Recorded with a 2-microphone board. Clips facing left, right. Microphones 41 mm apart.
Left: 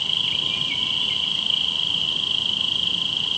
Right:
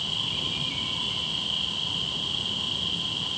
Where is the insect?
75° left (ahead or behind), 5 m.